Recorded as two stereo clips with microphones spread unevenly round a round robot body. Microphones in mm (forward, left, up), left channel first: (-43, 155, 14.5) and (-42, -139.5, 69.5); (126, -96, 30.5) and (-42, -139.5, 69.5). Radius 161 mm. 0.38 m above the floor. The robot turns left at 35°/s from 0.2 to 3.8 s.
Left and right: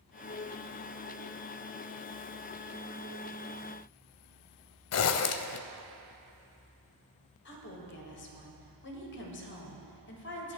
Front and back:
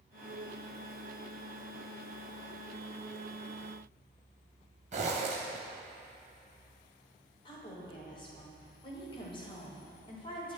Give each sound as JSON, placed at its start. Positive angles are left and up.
{"t": 4.9, "sound": "a zipper", "azimuth_deg": 130, "distance_m": 0.6}
{"t": 7.5, "sound": "a woman speaking", "azimuth_deg": 60, "distance_m": 1.8}